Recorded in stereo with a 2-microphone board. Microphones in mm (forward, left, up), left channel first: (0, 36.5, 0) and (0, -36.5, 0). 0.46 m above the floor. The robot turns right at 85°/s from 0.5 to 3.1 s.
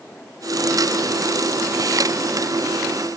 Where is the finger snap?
No finger snap in this recording.